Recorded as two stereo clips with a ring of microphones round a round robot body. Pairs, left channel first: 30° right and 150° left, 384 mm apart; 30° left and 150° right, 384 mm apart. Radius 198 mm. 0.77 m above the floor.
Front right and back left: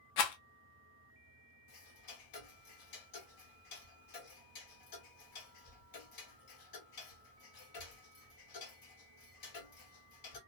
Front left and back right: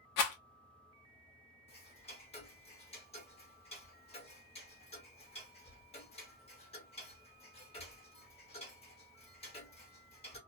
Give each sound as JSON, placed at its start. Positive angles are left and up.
{"t": 0.2, "sound": "a rattle", "azimuth_deg": -10, "distance_m": 0.7}
{"t": 1.7, "sound": "ticking", "azimuth_deg": -40, "distance_m": 1.3}